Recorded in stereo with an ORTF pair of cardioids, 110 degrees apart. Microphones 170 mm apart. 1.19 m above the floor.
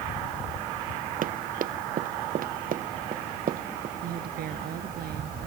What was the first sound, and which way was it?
Running footsteps, 55° right.